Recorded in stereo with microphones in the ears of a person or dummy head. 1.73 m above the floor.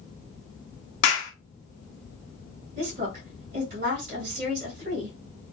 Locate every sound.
1.0 s a clap: 65° left (ahead or behind), 1.6 m
2.8 s a woman speaking: 45° right (ahead or behind), 2 m